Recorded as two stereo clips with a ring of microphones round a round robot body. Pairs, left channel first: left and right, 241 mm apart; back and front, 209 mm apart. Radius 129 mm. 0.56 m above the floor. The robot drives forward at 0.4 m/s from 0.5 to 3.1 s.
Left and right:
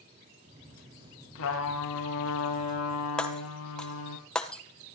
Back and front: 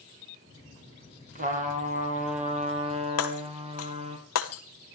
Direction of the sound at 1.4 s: 55° left.